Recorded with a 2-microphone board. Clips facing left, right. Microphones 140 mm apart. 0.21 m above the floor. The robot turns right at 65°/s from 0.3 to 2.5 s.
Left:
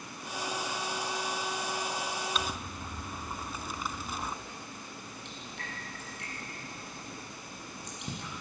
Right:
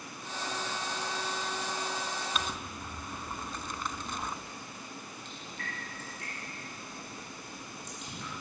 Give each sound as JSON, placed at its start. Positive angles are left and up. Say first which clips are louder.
{"t": 2.4, "sound": "crumpling", "louder": "left 1 dB", "side_deg": 0, "distance_m": 0.8}
{"t": 5.2, "sound": "dripping", "louder": "even", "side_deg": 65, "distance_m": 7.0}